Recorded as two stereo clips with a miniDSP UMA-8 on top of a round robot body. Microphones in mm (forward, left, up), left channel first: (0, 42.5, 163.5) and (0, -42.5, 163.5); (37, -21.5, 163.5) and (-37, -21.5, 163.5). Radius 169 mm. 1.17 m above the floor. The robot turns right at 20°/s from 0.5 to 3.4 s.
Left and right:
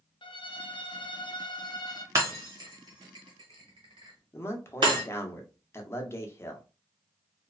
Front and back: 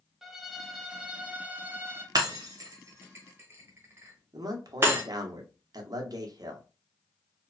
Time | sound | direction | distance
0.2 | a violin | 95° left | 0.6 m
2.1 | breaking glass | 145° right | 0.6 m
4.3 | a man speaking | 150° left | 0.8 m